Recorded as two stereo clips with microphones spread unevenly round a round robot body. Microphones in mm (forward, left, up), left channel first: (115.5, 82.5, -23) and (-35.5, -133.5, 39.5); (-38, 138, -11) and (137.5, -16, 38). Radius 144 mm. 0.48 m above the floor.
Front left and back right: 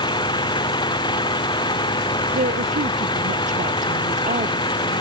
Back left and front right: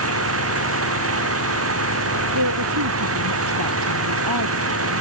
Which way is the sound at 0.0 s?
20° right.